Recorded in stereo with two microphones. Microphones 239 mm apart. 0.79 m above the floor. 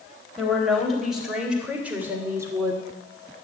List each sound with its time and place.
0.4 s a woman speaking: centre (ahead or behind), 4 m; by 2.8 s 15° right (ahead or behind), 2.5 m